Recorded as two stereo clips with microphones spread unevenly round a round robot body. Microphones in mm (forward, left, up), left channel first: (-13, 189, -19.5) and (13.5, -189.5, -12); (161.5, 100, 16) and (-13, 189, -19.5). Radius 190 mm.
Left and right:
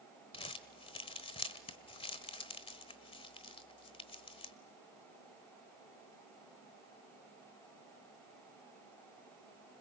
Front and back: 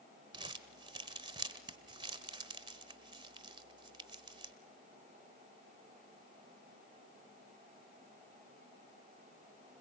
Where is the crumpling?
155° left, 1.0 m.